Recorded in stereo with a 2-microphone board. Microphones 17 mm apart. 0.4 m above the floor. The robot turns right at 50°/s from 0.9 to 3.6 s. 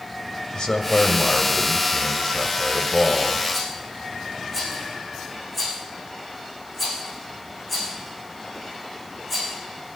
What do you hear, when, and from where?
0.5 s a man speaking: 80° left, 2 m; by 3.4 s 150° right, 2 m
3.5 s a rattle: centre (ahead or behind), 8.5 m